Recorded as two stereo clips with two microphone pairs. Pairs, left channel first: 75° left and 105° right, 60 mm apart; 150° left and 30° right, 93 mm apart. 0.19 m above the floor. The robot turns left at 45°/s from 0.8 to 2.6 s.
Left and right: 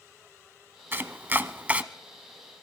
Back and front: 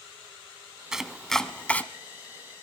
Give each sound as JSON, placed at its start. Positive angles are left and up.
{"t": 0.9, "sound": "chopping", "azimuth_deg": -110, "distance_m": 0.7}